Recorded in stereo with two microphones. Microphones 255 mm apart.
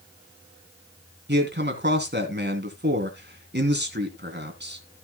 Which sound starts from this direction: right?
A man speaking, at 1.3 s.